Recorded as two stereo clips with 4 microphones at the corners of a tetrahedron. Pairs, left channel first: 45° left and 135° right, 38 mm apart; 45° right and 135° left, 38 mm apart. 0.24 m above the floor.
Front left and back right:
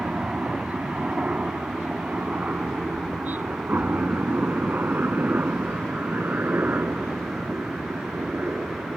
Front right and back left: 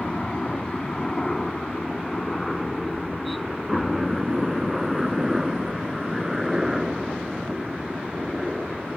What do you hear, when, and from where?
0.0 s a helicopter: 100° right; by 9.0 s 150° right